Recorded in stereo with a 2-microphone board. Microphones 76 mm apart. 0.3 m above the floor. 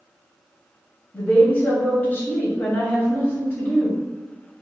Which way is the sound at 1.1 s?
25° left (ahead or behind).